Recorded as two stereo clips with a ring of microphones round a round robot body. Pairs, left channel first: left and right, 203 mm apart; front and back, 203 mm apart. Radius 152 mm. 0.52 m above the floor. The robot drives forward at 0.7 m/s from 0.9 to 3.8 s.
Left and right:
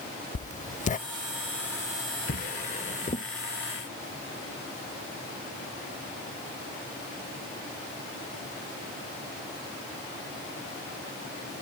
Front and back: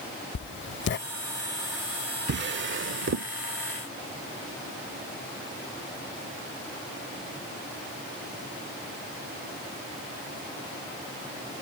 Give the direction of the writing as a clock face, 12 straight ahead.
11 o'clock.